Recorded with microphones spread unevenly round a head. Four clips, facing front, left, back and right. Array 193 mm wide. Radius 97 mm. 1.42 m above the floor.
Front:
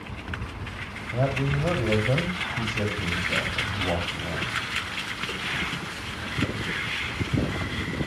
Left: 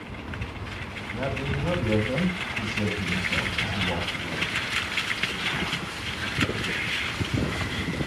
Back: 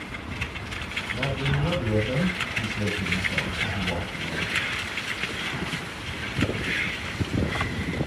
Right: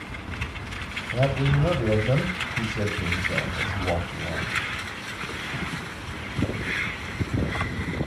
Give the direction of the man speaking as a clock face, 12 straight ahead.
2 o'clock.